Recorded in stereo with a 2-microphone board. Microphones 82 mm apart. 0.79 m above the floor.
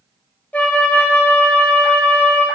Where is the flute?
20° left (ahead or behind), 1.4 m.